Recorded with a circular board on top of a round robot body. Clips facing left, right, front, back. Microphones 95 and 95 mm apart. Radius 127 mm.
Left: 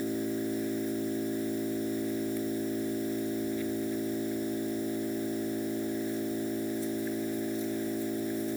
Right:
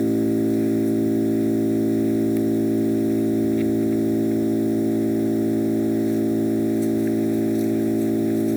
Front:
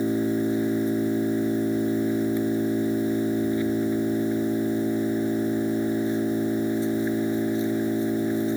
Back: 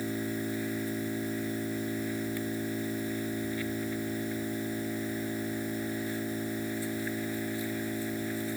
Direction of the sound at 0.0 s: 70° right.